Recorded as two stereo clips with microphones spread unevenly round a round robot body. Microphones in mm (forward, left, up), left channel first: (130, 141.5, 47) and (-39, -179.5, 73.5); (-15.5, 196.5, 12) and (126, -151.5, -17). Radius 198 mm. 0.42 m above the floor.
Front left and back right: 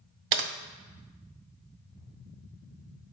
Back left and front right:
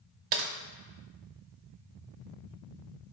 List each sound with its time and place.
0.3 s typing on a keyboard: 110° right, 0.6 m